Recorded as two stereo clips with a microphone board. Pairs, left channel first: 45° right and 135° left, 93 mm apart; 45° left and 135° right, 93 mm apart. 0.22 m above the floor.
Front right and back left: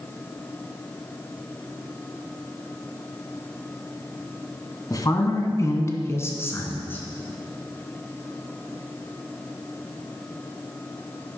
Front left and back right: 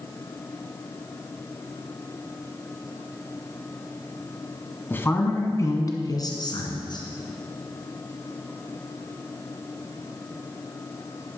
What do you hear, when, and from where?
4.9 s a woman speaking: 15° right, 1.6 m; by 7.0 s 20° left, 2.5 m